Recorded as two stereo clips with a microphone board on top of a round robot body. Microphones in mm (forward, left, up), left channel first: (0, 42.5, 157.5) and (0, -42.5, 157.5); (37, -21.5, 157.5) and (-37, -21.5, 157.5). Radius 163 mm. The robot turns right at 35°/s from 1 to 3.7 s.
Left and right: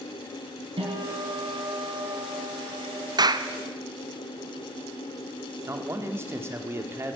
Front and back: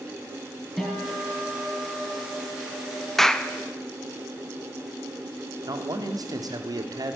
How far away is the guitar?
About 5.5 m.